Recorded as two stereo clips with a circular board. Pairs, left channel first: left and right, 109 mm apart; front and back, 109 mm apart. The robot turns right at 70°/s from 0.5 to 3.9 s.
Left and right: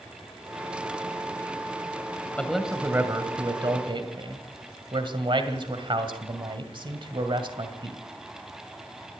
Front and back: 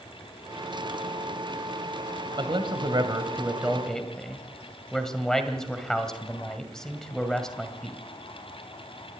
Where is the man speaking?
170° left, 1.9 m; by 8.0 s 85° right, 1.9 m.